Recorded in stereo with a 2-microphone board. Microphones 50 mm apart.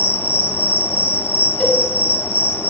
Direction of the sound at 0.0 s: 55° left (ahead or behind).